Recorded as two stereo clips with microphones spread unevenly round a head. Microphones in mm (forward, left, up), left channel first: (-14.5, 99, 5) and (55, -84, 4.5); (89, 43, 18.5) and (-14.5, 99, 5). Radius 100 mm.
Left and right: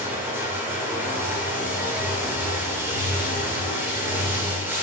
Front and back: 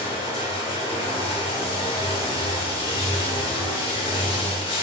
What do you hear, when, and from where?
0.0 s running water: 10° left, 2.5 m